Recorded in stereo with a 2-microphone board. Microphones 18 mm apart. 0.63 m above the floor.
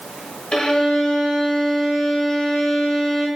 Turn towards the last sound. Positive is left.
turn(degrees=60)  # may be behind; listen again after turning